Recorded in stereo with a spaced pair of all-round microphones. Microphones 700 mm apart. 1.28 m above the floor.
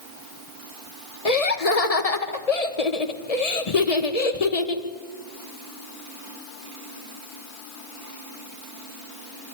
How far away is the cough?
No cough in this recording.